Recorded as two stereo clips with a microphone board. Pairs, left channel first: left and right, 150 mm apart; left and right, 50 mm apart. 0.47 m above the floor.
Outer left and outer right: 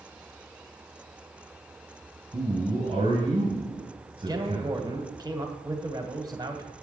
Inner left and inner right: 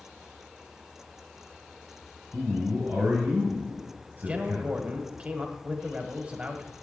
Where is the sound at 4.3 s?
25° right (ahead or behind), 1.5 m.